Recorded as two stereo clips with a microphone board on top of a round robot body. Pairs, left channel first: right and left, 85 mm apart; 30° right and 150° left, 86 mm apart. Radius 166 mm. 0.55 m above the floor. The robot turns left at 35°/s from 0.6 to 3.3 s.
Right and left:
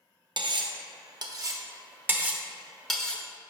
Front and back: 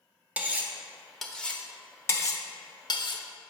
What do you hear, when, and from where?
0.4 s cutlery clinking: 75° left, 0.8 m; by 3.2 s 15° right, 0.8 m